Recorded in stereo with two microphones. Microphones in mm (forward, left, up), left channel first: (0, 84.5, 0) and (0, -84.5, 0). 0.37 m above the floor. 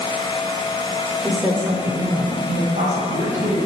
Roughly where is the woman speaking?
Centre.